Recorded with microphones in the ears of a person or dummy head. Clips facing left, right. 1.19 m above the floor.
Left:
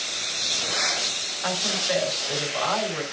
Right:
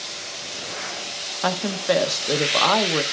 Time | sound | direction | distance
1.4 | a woman speaking | 55° right (ahead or behind) | 0.7 m